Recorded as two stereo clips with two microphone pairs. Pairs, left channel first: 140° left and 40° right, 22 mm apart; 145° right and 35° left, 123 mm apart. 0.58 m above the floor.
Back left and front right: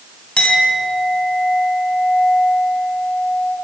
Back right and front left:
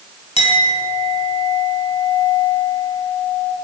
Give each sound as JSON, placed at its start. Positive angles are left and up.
{"t": 0.4, "sound": "a clink", "azimuth_deg": 180, "distance_m": 3.0}